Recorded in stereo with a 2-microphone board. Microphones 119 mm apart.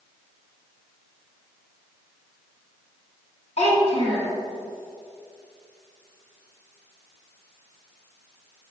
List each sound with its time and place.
3.6 s a child speaking: 70° left (ahead or behind), 2 m